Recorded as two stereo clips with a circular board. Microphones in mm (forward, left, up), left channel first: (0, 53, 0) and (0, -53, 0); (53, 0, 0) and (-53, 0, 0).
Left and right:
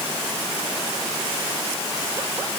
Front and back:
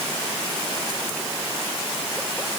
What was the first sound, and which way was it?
Only background noise.